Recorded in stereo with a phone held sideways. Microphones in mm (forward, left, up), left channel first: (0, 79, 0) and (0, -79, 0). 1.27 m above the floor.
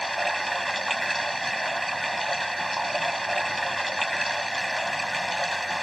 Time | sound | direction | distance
0.0 | running water | centre (ahead or behind) | ?